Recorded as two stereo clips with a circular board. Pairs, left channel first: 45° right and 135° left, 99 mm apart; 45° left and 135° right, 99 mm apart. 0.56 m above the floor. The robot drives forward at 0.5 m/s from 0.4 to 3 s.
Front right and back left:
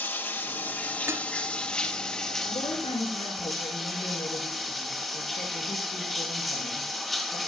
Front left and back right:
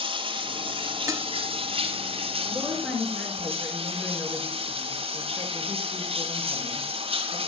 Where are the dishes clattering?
175° right, 0.8 m.